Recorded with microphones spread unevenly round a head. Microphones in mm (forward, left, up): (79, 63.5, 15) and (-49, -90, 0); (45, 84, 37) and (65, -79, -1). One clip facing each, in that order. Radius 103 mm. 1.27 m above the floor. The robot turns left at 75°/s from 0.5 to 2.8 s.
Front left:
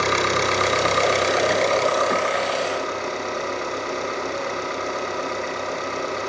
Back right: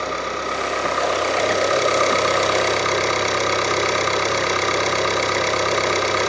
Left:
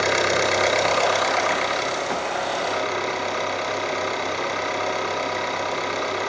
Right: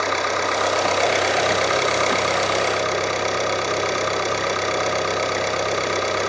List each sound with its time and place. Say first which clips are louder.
0.0 s an engine running: front left 4 dB, left 2 dB; 40° left, 5.5 m; by 6.3 s 135° right, 5.5 m